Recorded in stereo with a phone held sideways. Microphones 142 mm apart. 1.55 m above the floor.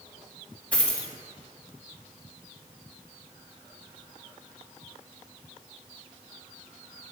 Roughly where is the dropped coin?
Centre.